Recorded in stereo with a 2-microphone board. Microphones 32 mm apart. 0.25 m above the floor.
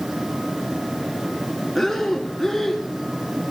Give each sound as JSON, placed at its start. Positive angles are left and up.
{"t": 1.8, "sound": "breathing", "side_deg": 5, "distance_m": 1.1}